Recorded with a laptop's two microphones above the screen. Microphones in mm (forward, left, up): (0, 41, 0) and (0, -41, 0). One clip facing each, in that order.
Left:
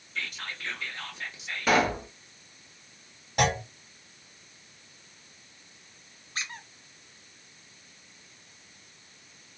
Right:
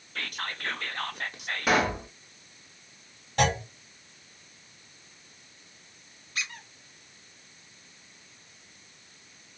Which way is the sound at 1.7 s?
10° right (ahead or behind).